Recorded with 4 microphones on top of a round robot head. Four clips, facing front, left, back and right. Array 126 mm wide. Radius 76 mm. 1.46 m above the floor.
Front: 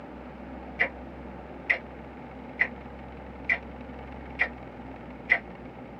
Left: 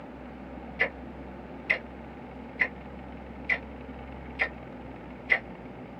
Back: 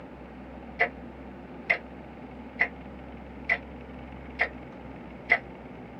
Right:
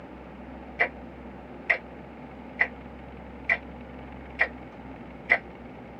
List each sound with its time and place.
0.8 s ticking: 125° right, 1.0 m